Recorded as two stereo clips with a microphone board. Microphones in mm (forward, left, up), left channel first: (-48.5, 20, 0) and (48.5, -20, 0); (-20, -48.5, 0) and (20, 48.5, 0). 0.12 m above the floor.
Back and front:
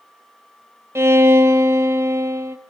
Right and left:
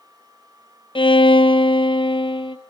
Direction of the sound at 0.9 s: 85° right.